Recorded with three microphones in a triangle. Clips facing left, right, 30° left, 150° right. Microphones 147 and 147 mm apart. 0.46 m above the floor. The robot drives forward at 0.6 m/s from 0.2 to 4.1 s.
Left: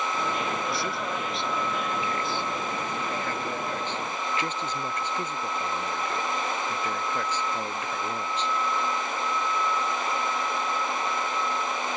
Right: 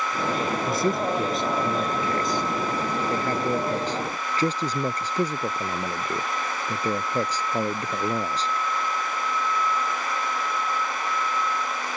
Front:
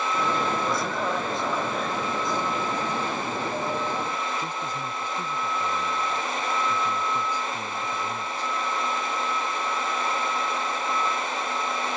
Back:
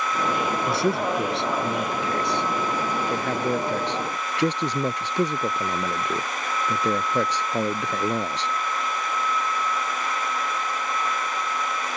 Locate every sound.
0.7 s a man speaking: 135° right; by 8.5 s 145° right